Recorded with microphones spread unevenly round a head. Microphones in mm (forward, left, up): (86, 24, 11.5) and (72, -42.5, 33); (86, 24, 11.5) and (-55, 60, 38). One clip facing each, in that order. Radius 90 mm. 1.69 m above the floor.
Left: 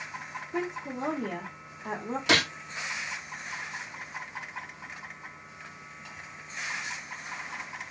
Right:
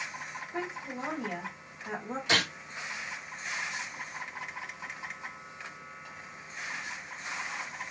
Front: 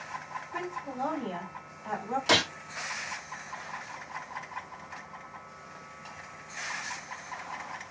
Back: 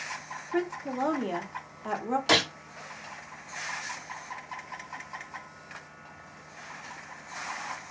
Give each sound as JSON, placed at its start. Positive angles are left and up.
{"t": 0.5, "sound": "a woman speaking", "azimuth_deg": 135, "distance_m": 0.8}
{"t": 2.3, "sound": "a gunshot", "azimuth_deg": 80, "distance_m": 0.8}